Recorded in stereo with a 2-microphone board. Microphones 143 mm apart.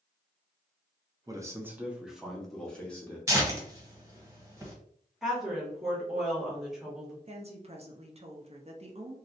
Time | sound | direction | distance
1.3 | a man speaking | 25° right (ahead or behind) | 0.6 m
3.3 | tearing paper | 20° right (ahead or behind) | 1.1 m
5.2 | a woman speaking | centre (ahead or behind) | 1.2 m
7.3 | a woman speaking | 45° right (ahead or behind) | 0.6 m